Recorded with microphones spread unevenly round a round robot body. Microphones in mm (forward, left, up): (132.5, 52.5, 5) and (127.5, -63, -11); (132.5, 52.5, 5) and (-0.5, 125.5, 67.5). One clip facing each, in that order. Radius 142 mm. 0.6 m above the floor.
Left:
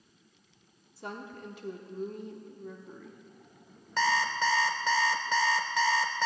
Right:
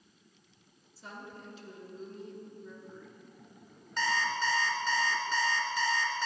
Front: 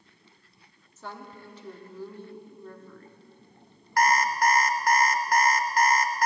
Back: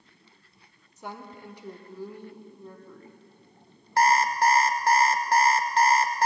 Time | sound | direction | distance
1.0 | a woman speaking | 60° left | 1.2 m
4.0 | an alarm clock | 85° left | 0.9 m